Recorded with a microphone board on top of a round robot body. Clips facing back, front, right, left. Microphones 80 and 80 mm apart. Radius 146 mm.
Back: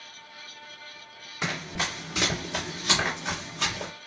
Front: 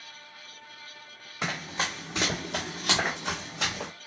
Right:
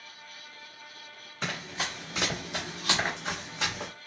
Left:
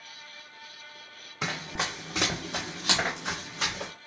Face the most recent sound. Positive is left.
turn(degrees=-10)